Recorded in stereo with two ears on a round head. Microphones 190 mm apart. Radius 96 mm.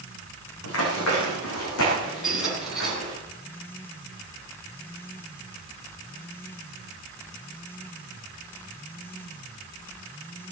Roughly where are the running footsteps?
Left.